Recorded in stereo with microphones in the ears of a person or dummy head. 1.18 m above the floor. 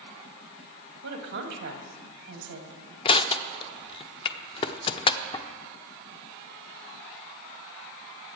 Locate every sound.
1.0 s a woman speaking: 60° right (ahead or behind), 2.0 m
3.0 s crushing: 20° left (ahead or behind), 0.6 m